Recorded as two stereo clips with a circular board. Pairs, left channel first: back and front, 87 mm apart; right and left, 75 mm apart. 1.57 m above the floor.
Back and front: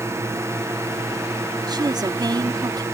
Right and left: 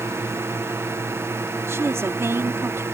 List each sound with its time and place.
0.0 s a drone: 45° left
1.7 s a woman speaking: 35° left